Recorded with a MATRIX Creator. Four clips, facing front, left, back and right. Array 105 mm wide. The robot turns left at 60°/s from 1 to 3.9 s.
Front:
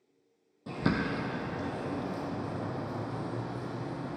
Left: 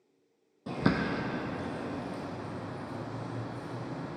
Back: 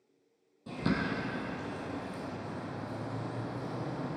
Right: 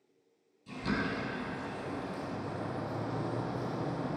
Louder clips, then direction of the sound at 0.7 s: Left 5 dB, front 2 dB; 70° left.